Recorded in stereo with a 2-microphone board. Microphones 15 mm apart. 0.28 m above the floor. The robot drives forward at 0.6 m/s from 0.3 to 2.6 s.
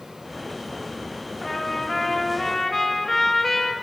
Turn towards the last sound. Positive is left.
turn(degrees=15)  # may be behind; listen again after turning